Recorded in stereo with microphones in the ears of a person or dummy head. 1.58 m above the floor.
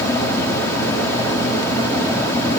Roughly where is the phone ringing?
I don't hear a phone ringing.